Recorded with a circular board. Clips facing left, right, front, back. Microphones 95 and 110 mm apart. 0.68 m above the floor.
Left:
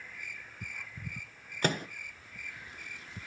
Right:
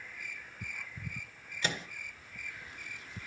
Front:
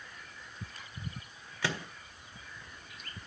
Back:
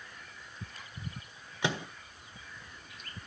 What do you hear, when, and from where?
1.6 s a microwave: 115° left, 0.6 m